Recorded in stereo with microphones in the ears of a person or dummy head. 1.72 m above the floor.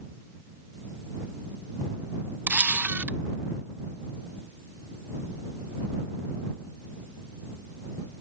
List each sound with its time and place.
2.5 s a camera shutter: 10° right (ahead or behind)